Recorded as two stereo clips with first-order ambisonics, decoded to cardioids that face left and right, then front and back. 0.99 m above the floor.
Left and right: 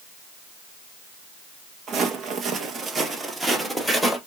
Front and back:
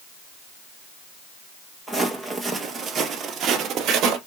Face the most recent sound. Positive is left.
turn(degrees=180)